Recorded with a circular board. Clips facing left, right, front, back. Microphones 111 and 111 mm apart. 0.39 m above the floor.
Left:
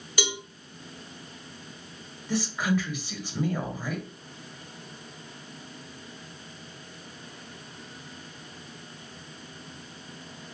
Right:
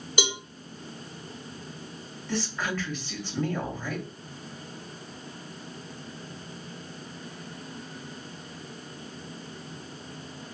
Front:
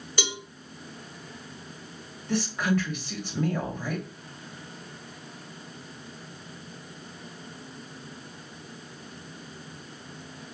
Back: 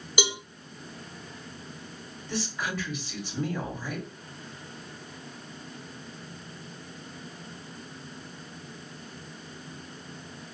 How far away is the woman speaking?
About 2.0 m.